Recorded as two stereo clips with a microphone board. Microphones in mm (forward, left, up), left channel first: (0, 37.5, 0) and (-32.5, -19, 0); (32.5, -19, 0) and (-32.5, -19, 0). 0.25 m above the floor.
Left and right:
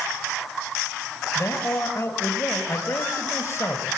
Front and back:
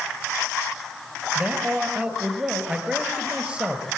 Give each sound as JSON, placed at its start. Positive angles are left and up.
{"t": 1.4, "sound": "a man speaking", "azimuth_deg": 105, "distance_m": 4.5}